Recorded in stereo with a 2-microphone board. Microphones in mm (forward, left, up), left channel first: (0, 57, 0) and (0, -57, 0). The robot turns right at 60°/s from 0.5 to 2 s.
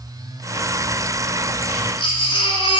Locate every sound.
1.7 s a baby crying: 65° left (ahead or behind), 2 m; by 2.8 s 50° left (ahead or behind), 2 m